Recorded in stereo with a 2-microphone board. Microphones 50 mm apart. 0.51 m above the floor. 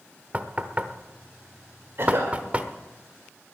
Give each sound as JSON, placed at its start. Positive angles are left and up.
{"t": 0.3, "sound": "knocking", "side_deg": -30, "distance_m": 0.9}
{"t": 2.0, "sound": "a cough", "side_deg": -55, "distance_m": 1.7}